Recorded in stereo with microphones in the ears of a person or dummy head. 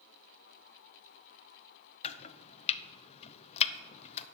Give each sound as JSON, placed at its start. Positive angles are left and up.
{"t": 2.0, "sound": "chopping", "side_deg": 45, "distance_m": 0.7}